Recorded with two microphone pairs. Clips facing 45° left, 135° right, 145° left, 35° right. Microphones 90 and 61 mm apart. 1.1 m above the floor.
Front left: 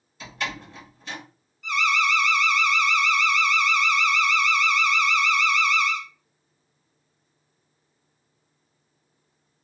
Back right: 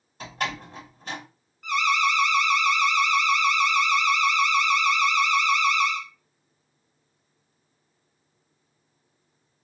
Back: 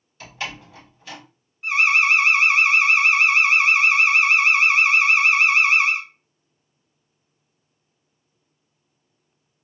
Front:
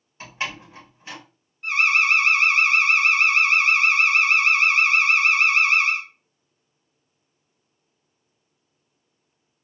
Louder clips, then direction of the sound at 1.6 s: Back right 1 dB, back 2 dB; 140° right.